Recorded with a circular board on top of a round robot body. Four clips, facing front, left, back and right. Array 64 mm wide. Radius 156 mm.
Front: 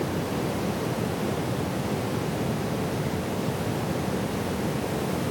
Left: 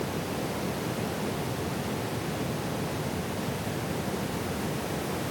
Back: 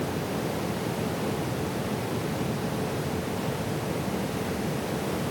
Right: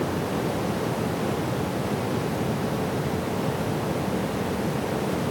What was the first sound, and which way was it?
Only background noise.